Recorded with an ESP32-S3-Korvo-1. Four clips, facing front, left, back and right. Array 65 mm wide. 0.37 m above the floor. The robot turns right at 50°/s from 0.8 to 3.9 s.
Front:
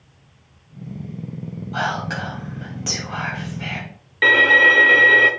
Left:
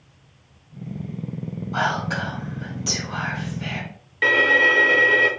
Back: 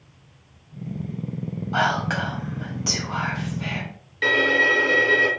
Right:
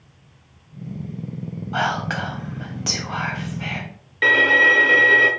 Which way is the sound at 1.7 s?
135° right.